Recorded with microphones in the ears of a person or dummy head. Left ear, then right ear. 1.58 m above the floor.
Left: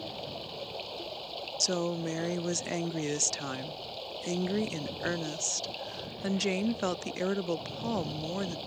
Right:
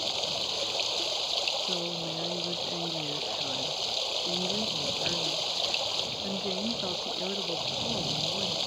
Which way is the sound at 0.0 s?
50° right (ahead or behind).